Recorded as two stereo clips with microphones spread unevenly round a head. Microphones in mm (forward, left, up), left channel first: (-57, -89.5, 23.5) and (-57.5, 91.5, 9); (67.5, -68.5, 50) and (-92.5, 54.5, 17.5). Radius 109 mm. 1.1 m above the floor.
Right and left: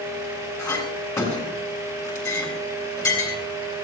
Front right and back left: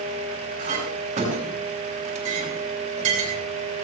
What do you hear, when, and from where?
0.6 s a clink: 160° right, 7.5 m